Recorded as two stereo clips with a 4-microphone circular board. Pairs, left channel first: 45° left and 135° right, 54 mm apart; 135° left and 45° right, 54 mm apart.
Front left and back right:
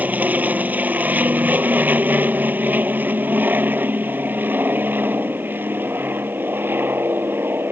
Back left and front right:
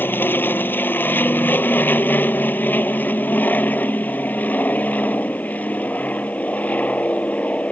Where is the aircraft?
170° left; by 7.7 s 170° right.